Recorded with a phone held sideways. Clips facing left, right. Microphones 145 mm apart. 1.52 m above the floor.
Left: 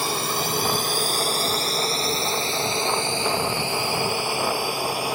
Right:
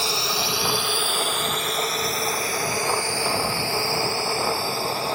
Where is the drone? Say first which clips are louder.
Left 1 dB; 50° left (ahead or behind); by 5.2 s 10° left (ahead or behind).